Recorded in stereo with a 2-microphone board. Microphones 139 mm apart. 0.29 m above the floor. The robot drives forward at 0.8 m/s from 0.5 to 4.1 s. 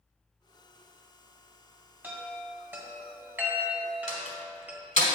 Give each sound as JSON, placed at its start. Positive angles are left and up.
{"t": 2.0, "sound": "a chime", "side_deg": -10, "distance_m": 1.6}
{"t": 4.1, "sound": "a door slam", "side_deg": 65, "distance_m": 1.8}